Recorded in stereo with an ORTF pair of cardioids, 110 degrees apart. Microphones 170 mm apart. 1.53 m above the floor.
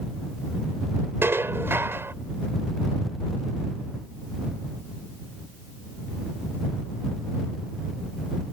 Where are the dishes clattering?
15° right.